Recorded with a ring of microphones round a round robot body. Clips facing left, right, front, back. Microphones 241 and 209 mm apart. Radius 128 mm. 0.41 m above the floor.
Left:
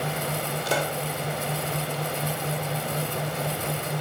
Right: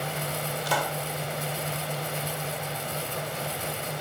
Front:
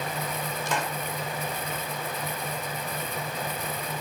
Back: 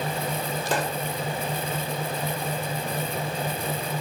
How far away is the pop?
About 1.4 m.